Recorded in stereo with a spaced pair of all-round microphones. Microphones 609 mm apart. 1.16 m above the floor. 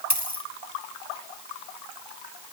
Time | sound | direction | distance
0.1 | a dropped coin | 25° left (ahead or behind) | 1.6 m